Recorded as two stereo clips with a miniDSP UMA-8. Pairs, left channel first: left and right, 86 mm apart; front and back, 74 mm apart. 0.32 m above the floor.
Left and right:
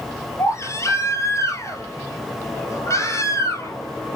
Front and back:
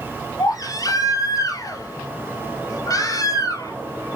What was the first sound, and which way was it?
A baby crying, 35° left.